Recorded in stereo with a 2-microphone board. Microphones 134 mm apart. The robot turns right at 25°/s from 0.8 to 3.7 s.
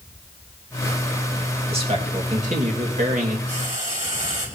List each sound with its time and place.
1.7 s a man speaking: 130° right, 2.5 m; by 3.4 s 90° right, 2.5 m
3.5 s frying: 70° right (ahead or behind), 4 m; by 4.5 s 75° right (ahead or behind), 4 m